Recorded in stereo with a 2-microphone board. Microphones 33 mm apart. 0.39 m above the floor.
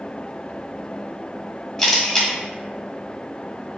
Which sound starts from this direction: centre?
A camera shutter, at 1.8 s.